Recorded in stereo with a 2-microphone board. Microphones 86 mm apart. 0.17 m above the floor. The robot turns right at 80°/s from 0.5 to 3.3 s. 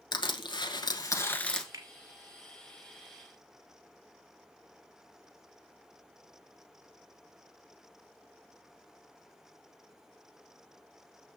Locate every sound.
0.1 s crushing: 85° left, 1.2 m; by 1.6 s 175° left, 1.2 m
1.7 s a finger snap: 40° right (ahead or behind), 1.6 m; by 1.9 s 45° right (ahead or behind), 1.6 m